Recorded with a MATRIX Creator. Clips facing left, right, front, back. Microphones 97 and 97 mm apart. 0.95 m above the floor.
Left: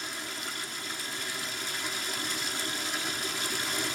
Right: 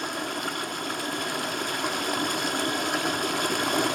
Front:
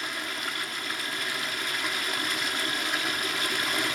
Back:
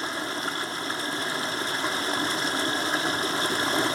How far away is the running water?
About 1.0 m.